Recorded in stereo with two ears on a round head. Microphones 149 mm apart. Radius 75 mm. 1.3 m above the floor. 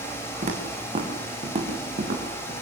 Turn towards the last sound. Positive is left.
turn(degrees=-40)  # may be behind; listen again after turning